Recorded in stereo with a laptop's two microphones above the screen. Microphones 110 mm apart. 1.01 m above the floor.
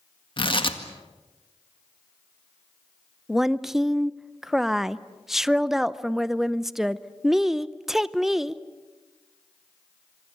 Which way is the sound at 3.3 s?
5° right (ahead or behind).